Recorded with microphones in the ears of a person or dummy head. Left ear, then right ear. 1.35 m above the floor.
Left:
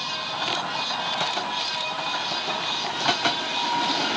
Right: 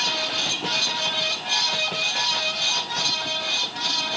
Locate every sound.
0.0 s a fan: 75° right (ahead or behind), 4.5 m